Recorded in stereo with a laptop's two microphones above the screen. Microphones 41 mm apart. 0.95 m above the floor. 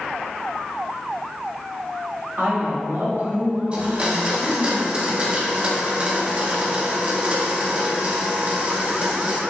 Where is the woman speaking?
65° right (ahead or behind), 1.6 m; by 4.7 s 35° right (ahead or behind), 1.7 m.